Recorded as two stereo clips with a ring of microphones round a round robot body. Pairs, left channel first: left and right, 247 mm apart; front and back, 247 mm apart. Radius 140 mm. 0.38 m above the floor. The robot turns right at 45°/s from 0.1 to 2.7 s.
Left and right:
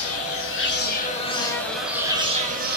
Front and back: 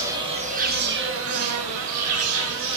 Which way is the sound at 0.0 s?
105° left.